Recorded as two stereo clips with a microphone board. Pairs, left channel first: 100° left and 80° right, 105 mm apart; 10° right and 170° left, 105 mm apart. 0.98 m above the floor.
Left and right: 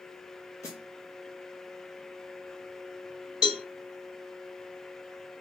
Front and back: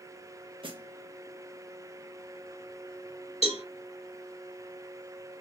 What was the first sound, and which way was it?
A snare drum, 155° left.